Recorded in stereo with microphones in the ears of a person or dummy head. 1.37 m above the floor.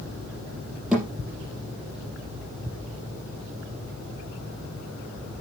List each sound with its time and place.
0.9 s a thud: 5° right (ahead or behind), 6.5 m